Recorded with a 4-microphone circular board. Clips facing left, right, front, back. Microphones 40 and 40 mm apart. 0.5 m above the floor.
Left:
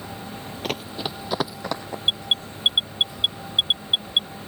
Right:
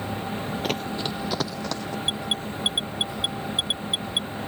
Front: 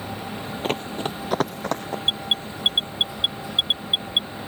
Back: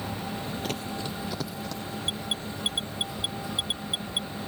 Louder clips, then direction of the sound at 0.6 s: Left 2 dB, front 6 dB; straight ahead.